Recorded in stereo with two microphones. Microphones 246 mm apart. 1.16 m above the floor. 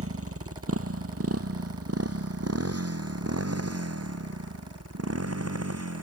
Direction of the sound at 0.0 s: 65° right (ahead or behind).